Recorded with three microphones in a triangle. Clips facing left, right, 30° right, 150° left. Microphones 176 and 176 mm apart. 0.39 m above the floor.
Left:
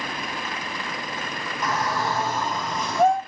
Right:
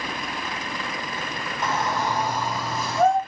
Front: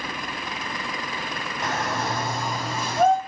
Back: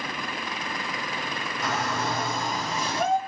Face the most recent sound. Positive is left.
turn(degrees=0)